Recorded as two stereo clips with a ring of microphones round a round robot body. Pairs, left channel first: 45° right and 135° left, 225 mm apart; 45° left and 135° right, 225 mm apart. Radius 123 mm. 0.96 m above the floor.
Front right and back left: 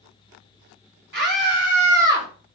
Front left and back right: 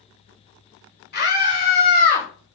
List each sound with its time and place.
1.1 s a scream: 90° left, 4.5 m; by 2.3 s 95° left, 3.5 m